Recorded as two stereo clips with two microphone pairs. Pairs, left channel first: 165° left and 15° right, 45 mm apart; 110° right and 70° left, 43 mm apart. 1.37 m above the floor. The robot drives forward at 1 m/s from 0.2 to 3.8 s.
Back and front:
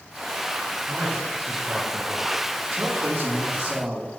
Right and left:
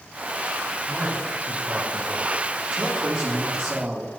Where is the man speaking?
15° left, 4 m; by 4.1 s 45° left, 1.6 m.